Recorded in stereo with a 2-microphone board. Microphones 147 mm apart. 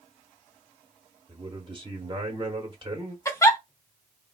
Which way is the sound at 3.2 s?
20° left (ahead or behind).